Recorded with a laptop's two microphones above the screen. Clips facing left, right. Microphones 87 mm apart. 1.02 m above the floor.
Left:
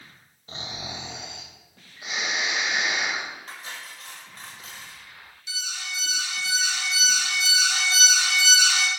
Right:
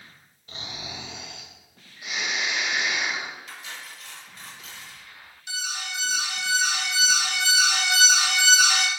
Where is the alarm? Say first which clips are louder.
Right 3 dB; 55° right (ahead or behind), 1.6 m.